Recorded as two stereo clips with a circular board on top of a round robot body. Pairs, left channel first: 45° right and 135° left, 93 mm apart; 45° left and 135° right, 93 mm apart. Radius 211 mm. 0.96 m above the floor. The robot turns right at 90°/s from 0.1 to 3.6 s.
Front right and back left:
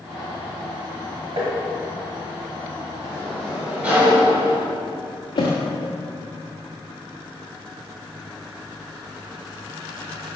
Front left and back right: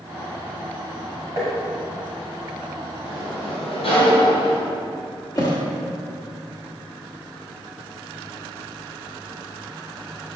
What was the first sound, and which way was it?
Tapping, 170° left.